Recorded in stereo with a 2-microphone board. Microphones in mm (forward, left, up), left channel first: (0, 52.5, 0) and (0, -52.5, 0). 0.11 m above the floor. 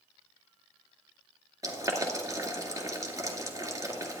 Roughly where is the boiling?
Right.